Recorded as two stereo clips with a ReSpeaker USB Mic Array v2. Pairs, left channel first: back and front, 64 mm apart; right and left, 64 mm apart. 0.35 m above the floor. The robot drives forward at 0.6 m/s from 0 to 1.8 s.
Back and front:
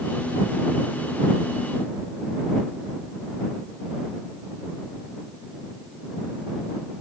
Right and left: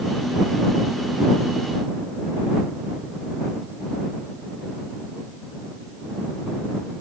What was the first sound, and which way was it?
Only background noise.